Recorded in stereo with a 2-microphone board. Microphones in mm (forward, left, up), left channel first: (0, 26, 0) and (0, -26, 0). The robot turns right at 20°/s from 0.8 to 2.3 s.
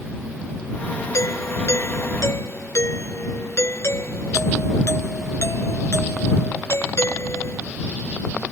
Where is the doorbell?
75° left (ahead or behind); by 7.6 s 65° left (ahead or behind).